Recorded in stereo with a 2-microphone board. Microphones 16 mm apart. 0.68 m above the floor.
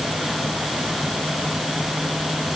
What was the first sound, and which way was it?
Only background noise.